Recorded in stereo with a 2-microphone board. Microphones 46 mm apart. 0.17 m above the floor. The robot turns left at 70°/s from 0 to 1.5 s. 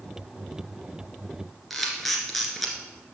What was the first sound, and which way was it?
A camera shutter, centre (ahead or behind).